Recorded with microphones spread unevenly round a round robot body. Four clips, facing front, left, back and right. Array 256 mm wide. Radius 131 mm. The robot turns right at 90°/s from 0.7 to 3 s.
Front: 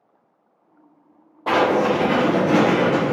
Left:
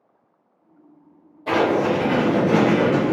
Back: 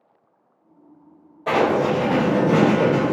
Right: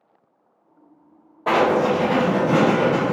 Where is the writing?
55° right, 1.4 m; by 3.1 s 85° left, 1.4 m.